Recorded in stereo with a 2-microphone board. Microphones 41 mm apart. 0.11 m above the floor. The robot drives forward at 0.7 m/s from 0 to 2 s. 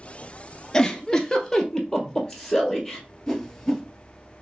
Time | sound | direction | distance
0.7 | a giggle | 15° left (ahead or behind) | 0.5 m
3.3 | a whoosh | 10° left (ahead or behind) | 1.0 m